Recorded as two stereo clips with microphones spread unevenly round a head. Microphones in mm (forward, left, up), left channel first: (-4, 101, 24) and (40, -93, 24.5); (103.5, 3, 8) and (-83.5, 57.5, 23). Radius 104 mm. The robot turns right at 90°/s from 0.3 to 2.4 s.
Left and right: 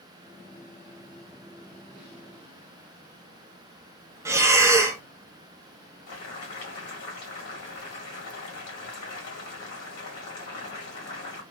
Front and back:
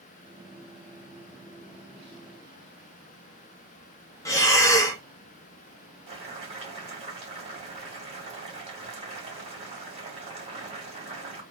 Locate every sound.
4.2 s breathing: 25° right, 0.6 m
6.1 s boiling: 105° left, 1.8 m